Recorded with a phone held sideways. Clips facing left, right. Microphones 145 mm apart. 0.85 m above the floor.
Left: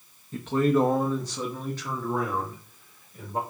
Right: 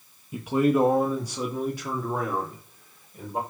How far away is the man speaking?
About 0.7 m.